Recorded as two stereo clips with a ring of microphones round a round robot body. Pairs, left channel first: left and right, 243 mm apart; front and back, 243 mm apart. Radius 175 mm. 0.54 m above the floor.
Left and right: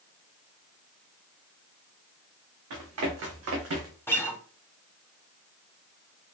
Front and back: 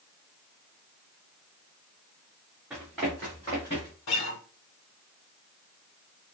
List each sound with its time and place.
2.7 s running footsteps: 95° right, 2 m; by 4.0 s 70° right, 2 m
4.1 s a guitar: 10° left, 1.3 m